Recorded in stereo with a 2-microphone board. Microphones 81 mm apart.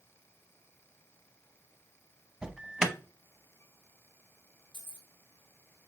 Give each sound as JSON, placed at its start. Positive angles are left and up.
{"t": 2.4, "sound": "an alarm", "side_deg": -10, "distance_m": 0.7}
{"t": 4.7, "sound": "keys jangling", "side_deg": 65, "distance_m": 1.6}